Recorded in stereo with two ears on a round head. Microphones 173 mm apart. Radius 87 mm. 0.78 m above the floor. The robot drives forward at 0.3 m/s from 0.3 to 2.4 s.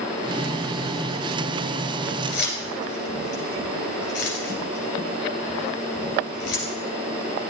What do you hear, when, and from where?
2.3 s keys jangling: 55° left (ahead or behind), 2.5 m